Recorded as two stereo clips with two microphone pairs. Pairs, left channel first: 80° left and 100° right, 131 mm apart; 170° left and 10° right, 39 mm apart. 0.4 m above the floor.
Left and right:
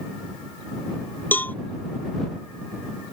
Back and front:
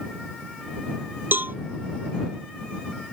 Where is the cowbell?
5° left.